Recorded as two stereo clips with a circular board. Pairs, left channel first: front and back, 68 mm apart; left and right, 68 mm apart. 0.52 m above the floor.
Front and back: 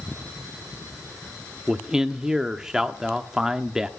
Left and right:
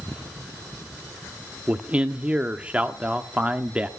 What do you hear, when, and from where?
1.7 s a man speaking: 120° right, 0.6 m